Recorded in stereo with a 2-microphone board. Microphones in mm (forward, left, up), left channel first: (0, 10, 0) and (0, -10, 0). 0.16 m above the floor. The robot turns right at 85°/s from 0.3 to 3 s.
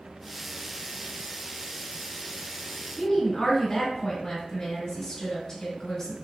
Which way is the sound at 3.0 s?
30° left (ahead or behind).